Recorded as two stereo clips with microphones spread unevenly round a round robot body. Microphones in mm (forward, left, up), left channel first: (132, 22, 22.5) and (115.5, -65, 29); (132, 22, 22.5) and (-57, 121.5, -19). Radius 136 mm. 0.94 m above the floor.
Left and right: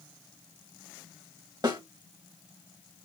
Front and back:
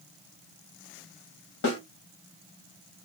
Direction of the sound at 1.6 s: 60° right.